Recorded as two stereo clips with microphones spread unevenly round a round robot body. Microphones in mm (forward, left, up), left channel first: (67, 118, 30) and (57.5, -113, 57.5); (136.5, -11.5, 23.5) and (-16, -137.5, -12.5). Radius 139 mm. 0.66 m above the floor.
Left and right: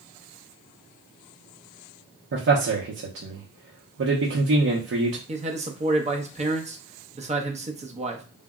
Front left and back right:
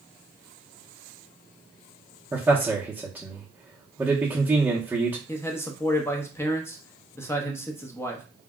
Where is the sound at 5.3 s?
45° right, 0.8 m.